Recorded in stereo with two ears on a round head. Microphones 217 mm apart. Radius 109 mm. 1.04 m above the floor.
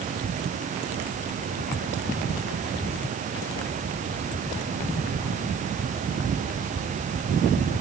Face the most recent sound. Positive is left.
No sound to turn to.